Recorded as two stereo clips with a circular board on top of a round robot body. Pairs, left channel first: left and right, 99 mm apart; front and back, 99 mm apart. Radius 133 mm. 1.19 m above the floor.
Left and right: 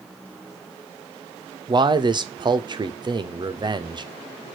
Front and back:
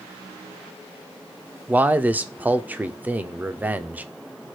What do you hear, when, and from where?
1.7 s a man speaking: 110° right, 0.6 m